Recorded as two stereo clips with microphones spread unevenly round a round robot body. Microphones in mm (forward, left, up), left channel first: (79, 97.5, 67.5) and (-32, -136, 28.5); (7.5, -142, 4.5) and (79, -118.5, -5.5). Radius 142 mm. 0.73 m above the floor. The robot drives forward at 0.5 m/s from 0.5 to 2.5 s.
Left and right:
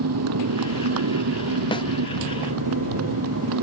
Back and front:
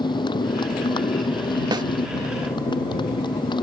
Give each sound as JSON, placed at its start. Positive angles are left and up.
{"t": 0.0, "sound": "a motorcycle", "azimuth_deg": -150}
{"t": 1.7, "sound": "a snare drum", "azimuth_deg": -10}